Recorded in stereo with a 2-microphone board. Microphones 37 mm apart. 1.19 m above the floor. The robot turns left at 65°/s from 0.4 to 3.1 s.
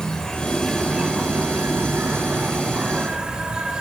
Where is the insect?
20° left, 3 m; by 3.8 s 160° right, 3 m.